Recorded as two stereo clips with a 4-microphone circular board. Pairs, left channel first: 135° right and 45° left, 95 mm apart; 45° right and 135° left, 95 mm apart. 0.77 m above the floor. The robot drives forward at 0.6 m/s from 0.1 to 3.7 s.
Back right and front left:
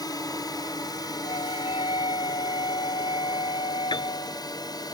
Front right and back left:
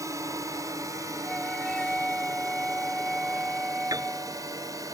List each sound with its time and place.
0.0 s a drone: 175° right
1.2 s a flute: 130° right; by 4.4 s 135° right
3.9 s a piano: 175° right